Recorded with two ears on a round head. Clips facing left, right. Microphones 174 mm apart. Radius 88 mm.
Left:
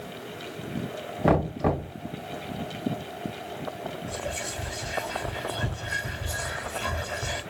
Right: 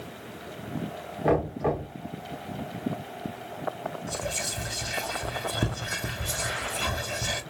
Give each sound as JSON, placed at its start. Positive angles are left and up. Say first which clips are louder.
{"t": 1.2, "sound": "knocking", "louder": "left 1 dB", "side_deg": 50, "distance_m": 2.5}
{"t": 4.1, "sound": "whispering", "louder": "even", "side_deg": -50, "distance_m": 1.3}